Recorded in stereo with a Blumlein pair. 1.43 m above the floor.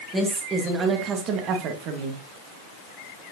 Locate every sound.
0.1 s a woman speaking: 15° right, 2 m; by 2.2 s 50° right, 1.7 m